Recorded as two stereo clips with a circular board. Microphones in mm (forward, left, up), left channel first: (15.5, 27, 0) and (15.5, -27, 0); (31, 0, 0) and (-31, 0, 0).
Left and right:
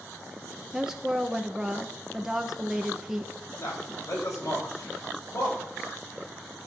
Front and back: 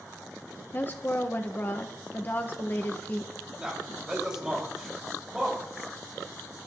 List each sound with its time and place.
0.7 s a woman speaking: 20° right, 0.9 m
3.6 s a man speaking: 100° left, 4.5 m